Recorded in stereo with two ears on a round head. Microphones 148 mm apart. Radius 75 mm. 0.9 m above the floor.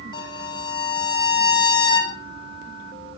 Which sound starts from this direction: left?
A violin, at 0.1 s.